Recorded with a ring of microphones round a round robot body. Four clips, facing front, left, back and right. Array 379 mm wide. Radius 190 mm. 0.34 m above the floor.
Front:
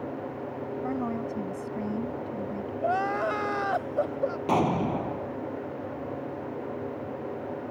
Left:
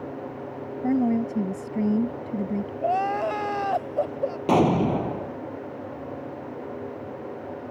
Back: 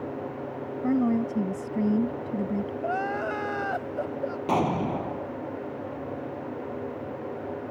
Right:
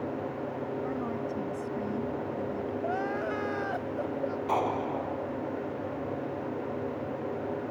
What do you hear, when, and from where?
0.8 s a woman speaking: 125° left
2.8 s crying: 55° left
4.5 s an explosion: 90° left